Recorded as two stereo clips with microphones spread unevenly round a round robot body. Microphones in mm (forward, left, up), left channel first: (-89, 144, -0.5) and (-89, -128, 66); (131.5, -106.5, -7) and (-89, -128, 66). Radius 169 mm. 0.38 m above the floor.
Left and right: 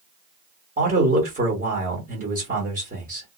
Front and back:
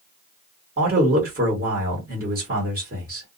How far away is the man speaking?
About 1.5 m.